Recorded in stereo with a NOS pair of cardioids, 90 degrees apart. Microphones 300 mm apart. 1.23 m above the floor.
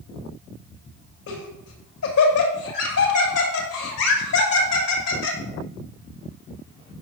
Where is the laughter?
60° left, 6.5 m.